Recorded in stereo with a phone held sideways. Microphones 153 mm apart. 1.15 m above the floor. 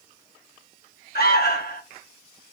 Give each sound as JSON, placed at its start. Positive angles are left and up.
{"t": 1.1, "sound": "an alarm", "side_deg": 80, "distance_m": 1.2}